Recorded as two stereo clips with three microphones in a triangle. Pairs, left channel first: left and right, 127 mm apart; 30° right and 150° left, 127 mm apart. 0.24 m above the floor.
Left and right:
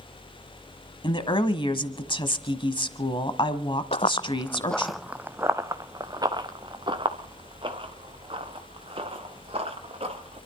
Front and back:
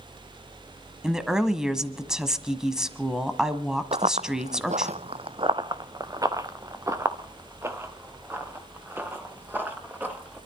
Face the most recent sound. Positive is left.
turn(degrees=-135)